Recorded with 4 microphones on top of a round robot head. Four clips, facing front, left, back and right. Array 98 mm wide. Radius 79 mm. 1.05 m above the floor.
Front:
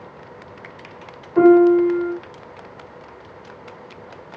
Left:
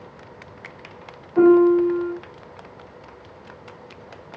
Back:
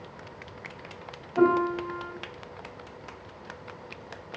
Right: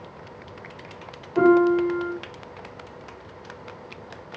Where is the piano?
5° right, 3.5 m.